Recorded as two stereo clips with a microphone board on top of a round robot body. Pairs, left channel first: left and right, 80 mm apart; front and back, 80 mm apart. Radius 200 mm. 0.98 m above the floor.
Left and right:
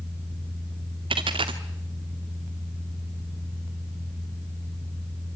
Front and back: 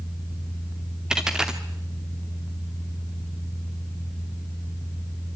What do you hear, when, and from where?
1.1 s a dropped coin: 100° right, 0.9 m